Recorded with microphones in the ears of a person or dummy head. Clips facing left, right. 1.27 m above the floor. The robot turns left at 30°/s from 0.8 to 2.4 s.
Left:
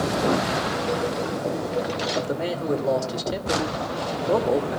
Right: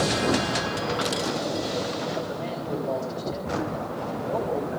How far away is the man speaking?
About 2.5 m.